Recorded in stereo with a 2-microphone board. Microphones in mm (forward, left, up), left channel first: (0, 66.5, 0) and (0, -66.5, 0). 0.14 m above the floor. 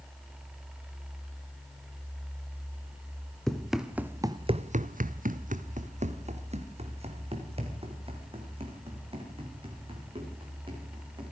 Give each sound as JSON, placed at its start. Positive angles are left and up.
{"t": 3.5, "sound": "running footsteps", "side_deg": 5, "distance_m": 2.0}